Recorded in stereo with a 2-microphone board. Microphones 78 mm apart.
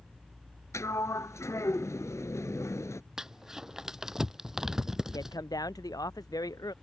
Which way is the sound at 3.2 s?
5° right (ahead or behind).